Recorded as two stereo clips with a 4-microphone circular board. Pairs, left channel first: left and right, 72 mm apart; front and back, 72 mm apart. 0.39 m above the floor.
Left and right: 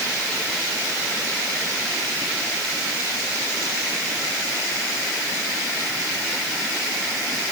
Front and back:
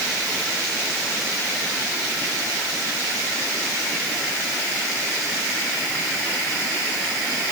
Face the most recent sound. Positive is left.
No sound to turn to.